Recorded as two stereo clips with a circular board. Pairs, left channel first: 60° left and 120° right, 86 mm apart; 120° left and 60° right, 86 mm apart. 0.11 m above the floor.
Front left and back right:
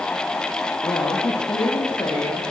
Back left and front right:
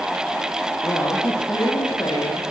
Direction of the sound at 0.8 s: 80° left.